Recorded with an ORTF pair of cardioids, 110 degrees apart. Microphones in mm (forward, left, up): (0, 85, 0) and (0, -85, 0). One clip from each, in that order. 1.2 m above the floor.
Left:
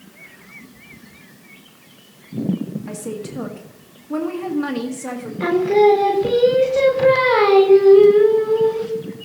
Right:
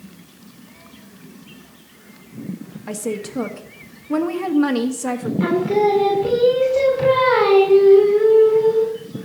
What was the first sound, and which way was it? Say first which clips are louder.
A woman speaking: right 9 dB; 25° right.